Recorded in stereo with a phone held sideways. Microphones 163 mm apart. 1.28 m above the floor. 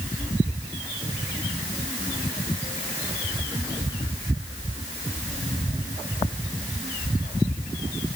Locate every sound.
Only background noise.